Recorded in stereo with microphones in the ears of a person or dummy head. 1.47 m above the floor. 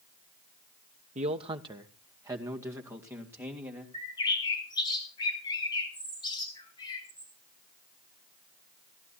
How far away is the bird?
About 5 m.